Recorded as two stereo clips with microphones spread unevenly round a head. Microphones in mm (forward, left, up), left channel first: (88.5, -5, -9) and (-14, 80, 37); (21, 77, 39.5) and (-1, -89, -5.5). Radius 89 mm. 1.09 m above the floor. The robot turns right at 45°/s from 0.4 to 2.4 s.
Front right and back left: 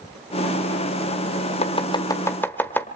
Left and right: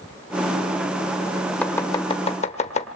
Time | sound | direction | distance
1.6 | chopping | 10° left | 1.4 m